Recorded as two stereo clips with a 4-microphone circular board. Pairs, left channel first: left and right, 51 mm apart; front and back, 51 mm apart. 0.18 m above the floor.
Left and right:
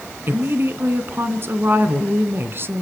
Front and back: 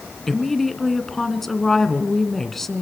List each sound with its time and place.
0.3 s a woman speaking: 85° right, 1.8 m